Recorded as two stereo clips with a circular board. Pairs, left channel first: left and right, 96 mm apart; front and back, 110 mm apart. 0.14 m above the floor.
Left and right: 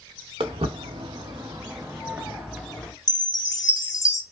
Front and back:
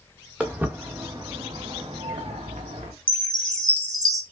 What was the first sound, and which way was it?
Footsteps, 100° right.